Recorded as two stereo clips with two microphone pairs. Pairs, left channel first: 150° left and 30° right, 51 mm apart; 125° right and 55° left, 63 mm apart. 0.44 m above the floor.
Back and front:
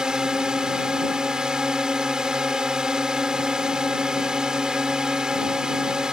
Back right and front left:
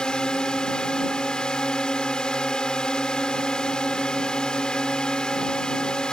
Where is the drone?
70° right.